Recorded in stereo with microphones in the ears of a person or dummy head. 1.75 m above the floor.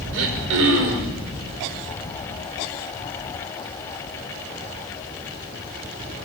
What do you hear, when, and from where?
0.1 s throat clearing: 75° right (ahead or behind), 5 m